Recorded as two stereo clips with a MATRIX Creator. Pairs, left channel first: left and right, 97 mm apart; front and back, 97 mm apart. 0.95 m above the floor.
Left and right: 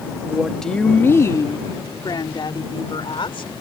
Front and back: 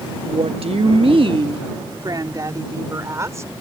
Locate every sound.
0.2 s a woman speaking: 170° right; by 3.5 s 120° left